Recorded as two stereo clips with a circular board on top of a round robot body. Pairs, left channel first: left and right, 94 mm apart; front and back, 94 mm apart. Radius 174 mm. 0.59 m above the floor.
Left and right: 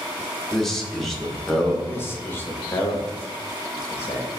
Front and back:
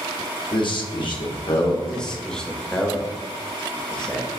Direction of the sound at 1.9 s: 70° left.